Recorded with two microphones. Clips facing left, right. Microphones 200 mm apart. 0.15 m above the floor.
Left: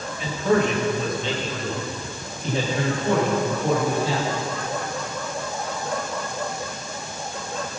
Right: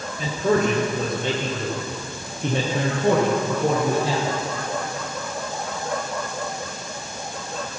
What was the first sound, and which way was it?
A man speaking, 40° right (ahead or behind).